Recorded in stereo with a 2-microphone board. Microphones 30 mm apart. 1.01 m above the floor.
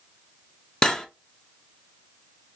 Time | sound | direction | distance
0.8 | cutlery clinking | 20° left (ahead or behind) | 0.5 m